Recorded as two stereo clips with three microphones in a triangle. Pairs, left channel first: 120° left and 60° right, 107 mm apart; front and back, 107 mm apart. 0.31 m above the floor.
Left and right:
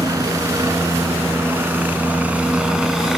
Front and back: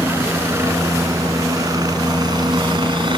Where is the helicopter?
115° right; by 3.2 s 150° right.